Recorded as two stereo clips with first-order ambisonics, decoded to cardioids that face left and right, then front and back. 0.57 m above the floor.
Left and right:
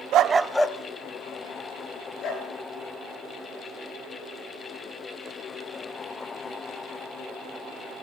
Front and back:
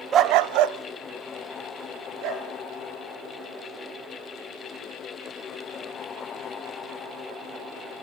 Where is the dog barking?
125° right, 0.5 m; by 2.5 s 145° left, 3.5 m.